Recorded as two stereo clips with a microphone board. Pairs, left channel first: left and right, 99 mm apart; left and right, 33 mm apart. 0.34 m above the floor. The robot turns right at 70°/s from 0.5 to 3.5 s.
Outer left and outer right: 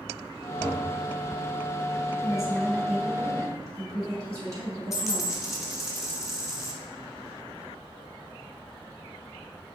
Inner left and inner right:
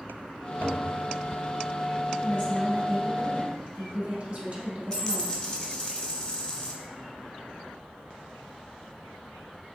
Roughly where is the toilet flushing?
Right.